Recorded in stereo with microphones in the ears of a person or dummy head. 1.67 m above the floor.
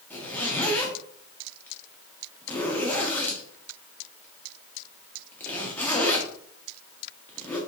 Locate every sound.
0.1 s a zipper: 10° left (ahead or behind), 0.8 m